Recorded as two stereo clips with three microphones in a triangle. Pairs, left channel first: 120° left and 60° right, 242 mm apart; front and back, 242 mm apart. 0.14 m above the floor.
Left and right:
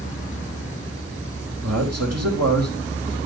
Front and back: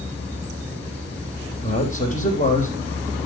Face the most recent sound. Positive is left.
turn(degrees=-60)